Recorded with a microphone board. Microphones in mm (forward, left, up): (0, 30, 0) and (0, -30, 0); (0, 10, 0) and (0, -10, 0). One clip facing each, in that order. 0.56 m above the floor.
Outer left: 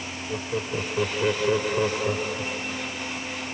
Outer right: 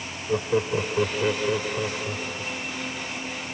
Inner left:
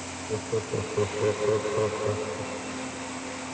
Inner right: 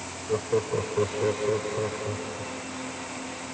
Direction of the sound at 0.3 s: 30° right (ahead or behind).